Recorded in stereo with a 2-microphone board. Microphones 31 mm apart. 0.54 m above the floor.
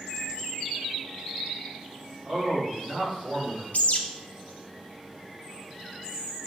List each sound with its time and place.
2.2 s a man speaking: 10° right (ahead or behind), 1.8 m; by 3.6 s 40° right (ahead or behind), 1.6 m
3.7 s a bird: 55° left (ahead or behind), 0.5 m